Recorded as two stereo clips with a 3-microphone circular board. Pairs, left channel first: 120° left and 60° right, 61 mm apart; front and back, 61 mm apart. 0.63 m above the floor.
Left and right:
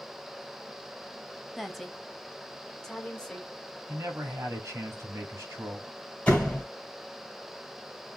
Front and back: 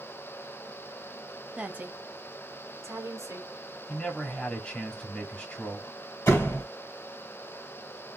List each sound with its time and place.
1.6 s a woman speaking: 145° right, 0.6 m; by 3.5 s 165° right, 1.3 m
3.9 s a man speaking: 70° right, 1.3 m
6.3 s a door slam: 50° left, 1.4 m